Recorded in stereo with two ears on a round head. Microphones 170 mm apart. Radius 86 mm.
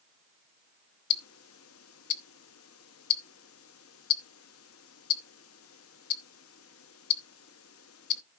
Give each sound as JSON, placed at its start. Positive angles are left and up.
{"t": 1.1, "sound": "ticking", "side_deg": 85, "distance_m": 0.8}